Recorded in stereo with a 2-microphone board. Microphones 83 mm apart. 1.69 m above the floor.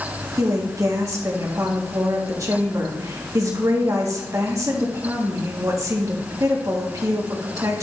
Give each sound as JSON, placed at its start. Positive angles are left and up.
{"t": 0.4, "sound": "a woman speaking", "side_deg": -40, "distance_m": 1.5}